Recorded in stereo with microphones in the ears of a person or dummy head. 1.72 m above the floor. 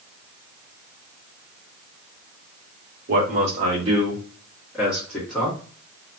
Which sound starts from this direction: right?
A man speaking, at 3.1 s.